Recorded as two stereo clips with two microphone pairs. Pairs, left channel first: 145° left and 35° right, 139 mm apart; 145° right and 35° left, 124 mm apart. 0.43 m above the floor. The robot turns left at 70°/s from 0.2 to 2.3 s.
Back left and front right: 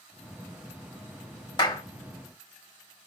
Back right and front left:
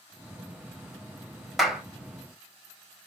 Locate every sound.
1.6 s a clap: 125° left, 1.1 m; by 1.8 s 110° left, 1.1 m